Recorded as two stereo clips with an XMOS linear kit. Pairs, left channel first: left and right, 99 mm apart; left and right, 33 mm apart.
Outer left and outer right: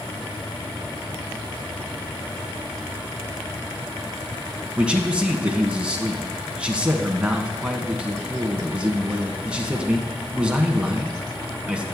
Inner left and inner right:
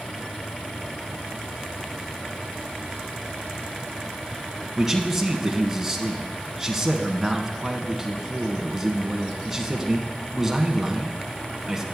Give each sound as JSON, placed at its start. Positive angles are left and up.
{"t": 4.8, "sound": "a man speaking", "side_deg": -10, "distance_m": 1.4}